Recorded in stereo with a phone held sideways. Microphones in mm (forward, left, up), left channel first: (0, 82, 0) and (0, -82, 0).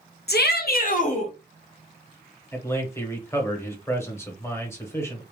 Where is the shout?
70° left (ahead or behind), 0.7 m; by 1.3 s 40° left (ahead or behind), 1.0 m.